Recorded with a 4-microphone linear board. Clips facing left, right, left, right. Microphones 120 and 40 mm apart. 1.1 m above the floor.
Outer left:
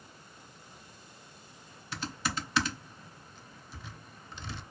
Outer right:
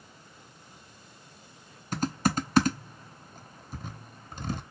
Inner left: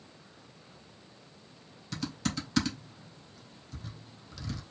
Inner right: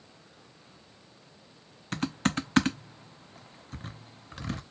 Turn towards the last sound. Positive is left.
turn(degrees=-45)  # may be behind; listen again after turning